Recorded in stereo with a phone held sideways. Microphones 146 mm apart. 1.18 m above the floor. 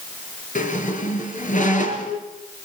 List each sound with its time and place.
0.6 s a squeak: 60° left (ahead or behind), 3.5 m